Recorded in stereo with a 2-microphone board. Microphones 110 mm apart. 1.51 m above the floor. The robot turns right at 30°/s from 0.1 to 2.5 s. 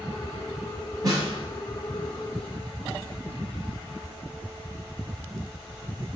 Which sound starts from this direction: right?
A snare drum, at 1.0 s.